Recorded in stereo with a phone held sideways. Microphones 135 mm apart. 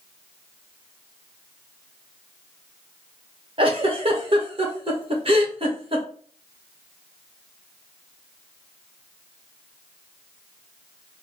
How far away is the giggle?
About 0.7 m.